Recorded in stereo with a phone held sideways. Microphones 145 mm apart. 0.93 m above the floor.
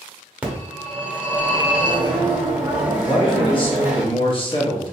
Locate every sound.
0.4 s a phone ringing: 10° right (ahead or behind), 1.0 m
3.0 s a man speaking: 35° left (ahead or behind), 1.1 m